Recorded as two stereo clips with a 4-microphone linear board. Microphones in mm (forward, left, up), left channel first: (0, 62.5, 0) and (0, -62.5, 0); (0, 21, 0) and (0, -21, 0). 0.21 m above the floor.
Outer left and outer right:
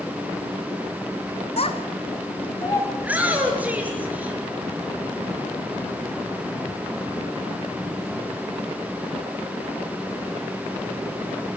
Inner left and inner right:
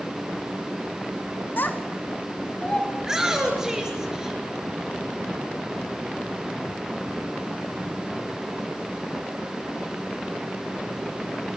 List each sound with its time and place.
1.6 s a child speaking: 55° left (ahead or behind), 2 m; by 2.9 s 20° left (ahead or behind), 1.8 m
3.0 s a shout: 10° right (ahead or behind), 4.5 m